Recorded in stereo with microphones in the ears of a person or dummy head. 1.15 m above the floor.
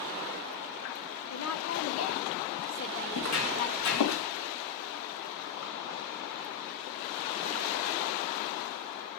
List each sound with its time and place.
1.3 s a woman speaking: 80° left, 1.9 m; by 4.1 s 45° left (ahead or behind), 1.9 m
3.1 s footsteps: 80° left, 5.5 m; by 4.2 s 65° left (ahead or behind), 5 m